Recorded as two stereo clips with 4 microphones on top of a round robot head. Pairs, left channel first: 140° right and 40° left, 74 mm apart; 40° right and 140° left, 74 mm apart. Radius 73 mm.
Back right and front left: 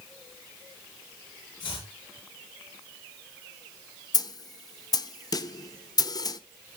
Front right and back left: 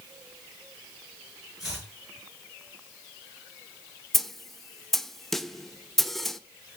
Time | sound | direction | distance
1.6 | chopping | 135° right | 6.5 m
4.1 | a snare drum | 125° right | 0.9 m